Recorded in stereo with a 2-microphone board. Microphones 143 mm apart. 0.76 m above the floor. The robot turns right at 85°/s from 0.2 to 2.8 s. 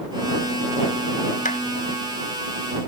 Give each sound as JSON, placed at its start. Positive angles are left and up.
{"t": 1.4, "sound": "a clap", "side_deg": 65}